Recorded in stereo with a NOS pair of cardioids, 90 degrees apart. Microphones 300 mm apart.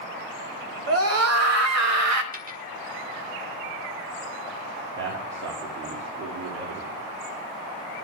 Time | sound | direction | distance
0.9 | a scream | 50° right | 2.5 m
2.3 | a dropped coin | 30° right | 1.2 m
5.0 | a man speaking | 60° right | 3 m